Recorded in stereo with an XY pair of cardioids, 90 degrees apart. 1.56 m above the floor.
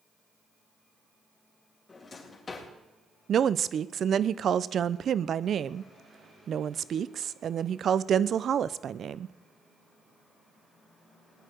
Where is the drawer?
45° left, 3.5 m.